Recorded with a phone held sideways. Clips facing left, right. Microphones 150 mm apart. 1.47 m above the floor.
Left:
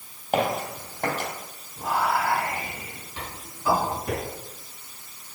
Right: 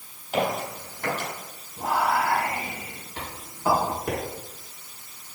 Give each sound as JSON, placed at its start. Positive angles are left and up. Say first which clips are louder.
{"t": 0.3, "sound": "footsteps", "louder": "left 1 dB", "side_deg": 55, "distance_m": 3.0}
{"t": 1.8, "sound": "whispering", "louder": "right 1 dB", "side_deg": -80, "distance_m": 4.0}